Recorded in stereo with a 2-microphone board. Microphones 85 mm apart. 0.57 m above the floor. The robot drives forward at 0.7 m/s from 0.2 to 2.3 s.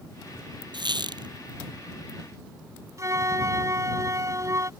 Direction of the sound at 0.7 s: 65° right (ahead or behind).